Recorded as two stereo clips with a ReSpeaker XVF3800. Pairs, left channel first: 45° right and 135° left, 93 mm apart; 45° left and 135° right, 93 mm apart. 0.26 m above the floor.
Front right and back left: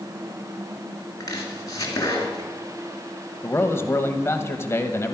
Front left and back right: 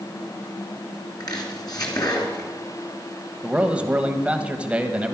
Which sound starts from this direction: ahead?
Chopping, at 1.2 s.